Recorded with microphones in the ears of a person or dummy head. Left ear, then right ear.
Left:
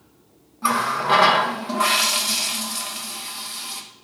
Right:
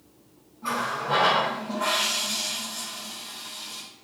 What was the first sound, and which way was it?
A running tap, 60° left (ahead or behind).